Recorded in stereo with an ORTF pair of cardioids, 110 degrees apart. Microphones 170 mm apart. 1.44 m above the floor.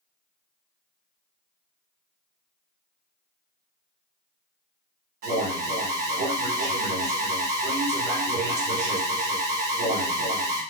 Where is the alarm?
65° right, 3.5 m.